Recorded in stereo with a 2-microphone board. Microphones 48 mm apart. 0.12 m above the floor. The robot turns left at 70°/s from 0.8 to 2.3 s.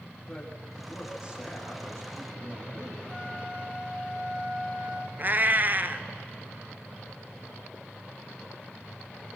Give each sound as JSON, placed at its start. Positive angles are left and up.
{"t": 0.3, "sound": "a man speaking", "azimuth_deg": 15, "distance_m": 6.5}
{"t": 3.1, "sound": "a flute", "side_deg": -30, "distance_m": 2.5}
{"t": 5.2, "sound": "a cat meowing", "side_deg": -45, "distance_m": 0.7}